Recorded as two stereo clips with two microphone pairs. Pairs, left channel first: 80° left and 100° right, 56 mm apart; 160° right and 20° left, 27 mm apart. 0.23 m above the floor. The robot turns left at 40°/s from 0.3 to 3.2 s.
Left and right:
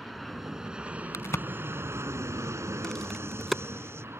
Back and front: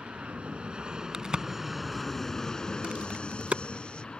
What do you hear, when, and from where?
0.0 s an aircraft: 10° right; by 4.2 s 125° right
1.1 s a crack: 75° left; by 3.6 s 10° right